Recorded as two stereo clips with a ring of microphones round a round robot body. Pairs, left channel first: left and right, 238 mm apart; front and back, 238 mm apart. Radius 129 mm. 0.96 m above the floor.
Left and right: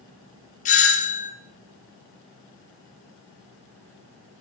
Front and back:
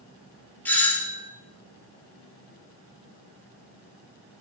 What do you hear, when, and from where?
0.7 s a doorbell: 75° left, 0.6 m